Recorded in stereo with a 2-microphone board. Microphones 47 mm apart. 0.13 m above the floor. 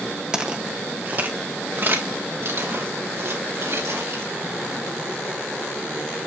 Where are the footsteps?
15° right (ahead or behind), 2 m; by 4.3 s 65° right (ahead or behind), 7 m.